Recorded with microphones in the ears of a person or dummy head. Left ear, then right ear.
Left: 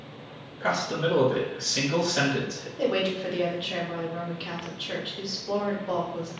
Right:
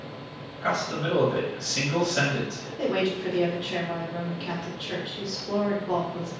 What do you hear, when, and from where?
0.6 s a man speaking: 5° left (ahead or behind), 1.0 m
2.8 s a woman speaking: 10° left (ahead or behind), 0.8 m